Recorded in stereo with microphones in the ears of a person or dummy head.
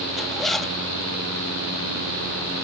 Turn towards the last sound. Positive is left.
turn(degrees=0)  # may be behind; listen again after turning